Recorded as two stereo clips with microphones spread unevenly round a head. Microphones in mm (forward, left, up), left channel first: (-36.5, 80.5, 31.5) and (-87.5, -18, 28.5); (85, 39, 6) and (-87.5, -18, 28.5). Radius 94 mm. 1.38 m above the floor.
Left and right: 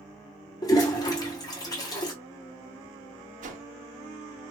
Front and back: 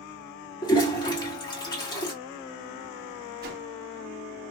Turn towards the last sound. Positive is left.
turn(degrees=-115)